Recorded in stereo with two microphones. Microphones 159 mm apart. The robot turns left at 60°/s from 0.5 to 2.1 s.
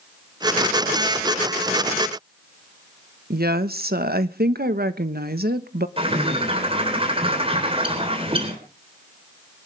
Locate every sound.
3.3 s a woman speaking: 75° right (ahead or behind), 1.2 m
6.0 s a bird: 35° right (ahead or behind), 3.5 m